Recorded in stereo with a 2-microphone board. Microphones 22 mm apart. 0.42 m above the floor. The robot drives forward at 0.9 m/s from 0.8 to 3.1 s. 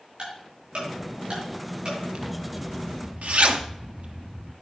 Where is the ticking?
55° right (ahead or behind), 5.5 m; by 2.0 s 45° right (ahead or behind), 6 m.